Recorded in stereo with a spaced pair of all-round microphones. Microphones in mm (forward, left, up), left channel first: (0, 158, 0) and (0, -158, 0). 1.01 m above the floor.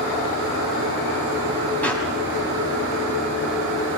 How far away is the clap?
About 5.5 m.